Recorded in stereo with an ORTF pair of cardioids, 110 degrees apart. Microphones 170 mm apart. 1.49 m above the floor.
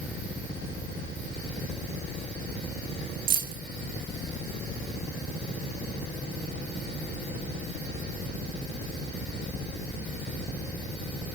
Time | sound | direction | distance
3.3 | keys jangling | 60° right | 1.2 m